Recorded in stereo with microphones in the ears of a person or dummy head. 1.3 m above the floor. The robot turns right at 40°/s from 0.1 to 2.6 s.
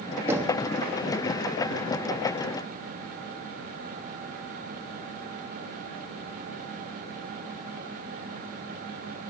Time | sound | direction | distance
0.3 | knocking | 10° right (ahead or behind) | 1.6 m